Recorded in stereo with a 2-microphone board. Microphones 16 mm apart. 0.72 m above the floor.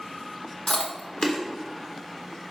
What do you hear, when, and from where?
0.7 s chewing: 60° left (ahead or behind), 0.9 m